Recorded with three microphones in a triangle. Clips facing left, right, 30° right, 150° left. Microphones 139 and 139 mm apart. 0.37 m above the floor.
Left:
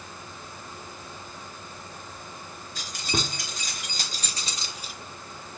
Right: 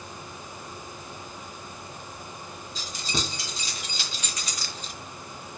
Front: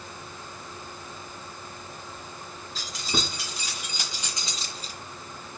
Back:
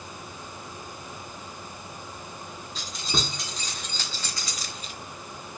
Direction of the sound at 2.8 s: 60° left.